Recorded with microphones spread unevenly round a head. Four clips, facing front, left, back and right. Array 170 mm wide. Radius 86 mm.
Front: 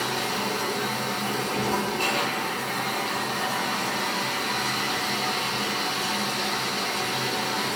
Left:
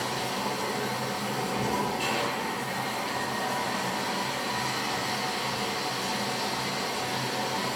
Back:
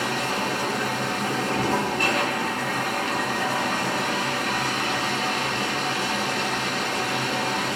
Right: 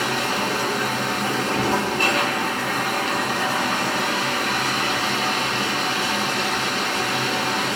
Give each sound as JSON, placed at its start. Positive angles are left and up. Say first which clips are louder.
{"t": 0.0, "sound": "running water", "louder": "right 7 dB, back 2 dB", "azimuth_deg": -90, "distance_m": 1.4}